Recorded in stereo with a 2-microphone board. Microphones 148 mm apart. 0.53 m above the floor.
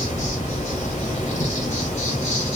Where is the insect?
55° left (ahead or behind), 1.6 m.